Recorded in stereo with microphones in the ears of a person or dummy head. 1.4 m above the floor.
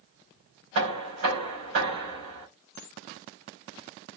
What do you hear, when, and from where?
0.8 s knocking: 50° right (ahead or behind), 3.5 m